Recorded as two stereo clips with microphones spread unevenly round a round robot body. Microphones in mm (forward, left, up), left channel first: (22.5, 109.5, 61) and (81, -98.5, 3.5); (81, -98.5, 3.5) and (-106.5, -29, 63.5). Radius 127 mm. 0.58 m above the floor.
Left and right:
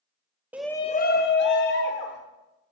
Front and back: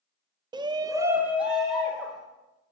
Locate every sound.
0.5 s a shout: 120° right, 0.6 m; by 2.2 s 65° left, 1.8 m